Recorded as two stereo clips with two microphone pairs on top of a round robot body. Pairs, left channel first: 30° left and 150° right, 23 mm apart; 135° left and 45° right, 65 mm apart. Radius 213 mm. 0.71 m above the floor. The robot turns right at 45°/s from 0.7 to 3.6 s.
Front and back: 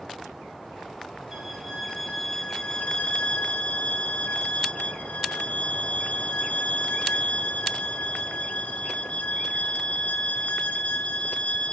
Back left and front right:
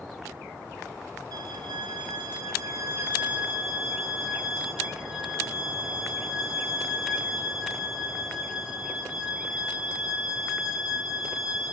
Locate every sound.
1.3 s a violin: 70° right, 0.6 m; by 11.7 s 35° left, 0.6 m